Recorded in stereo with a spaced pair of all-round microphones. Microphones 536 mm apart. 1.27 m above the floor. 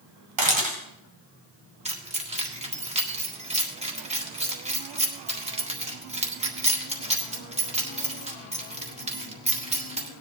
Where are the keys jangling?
10° right (ahead or behind), 1.8 m.